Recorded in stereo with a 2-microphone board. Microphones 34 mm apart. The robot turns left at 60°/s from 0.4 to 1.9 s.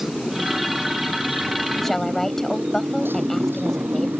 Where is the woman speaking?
5° left (ahead or behind); by 4.1 s 10° left (ahead or behind).